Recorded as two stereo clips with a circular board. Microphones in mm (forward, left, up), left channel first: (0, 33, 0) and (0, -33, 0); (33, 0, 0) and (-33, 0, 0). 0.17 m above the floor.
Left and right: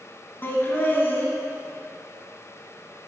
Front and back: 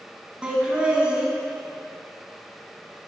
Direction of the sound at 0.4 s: 115° left.